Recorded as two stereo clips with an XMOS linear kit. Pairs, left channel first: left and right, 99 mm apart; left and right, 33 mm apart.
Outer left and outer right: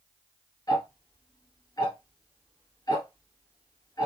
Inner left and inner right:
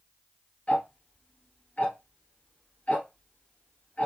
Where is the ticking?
40° left (ahead or behind), 1.8 m.